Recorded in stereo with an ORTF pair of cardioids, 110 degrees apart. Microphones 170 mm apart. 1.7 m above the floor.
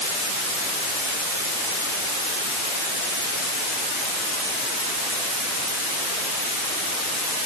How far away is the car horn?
I don't hear a car horn.